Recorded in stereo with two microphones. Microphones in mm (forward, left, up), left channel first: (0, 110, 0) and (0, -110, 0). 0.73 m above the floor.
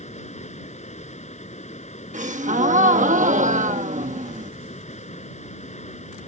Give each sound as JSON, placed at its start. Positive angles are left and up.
{"t": 0.0, "sound": "running water", "side_deg": 30}
{"t": 2.1, "sound": "a gasp", "side_deg": -35}